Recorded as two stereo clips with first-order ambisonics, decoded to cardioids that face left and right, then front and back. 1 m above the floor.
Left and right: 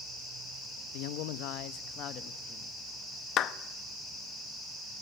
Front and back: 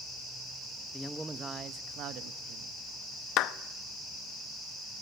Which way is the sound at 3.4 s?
40° left.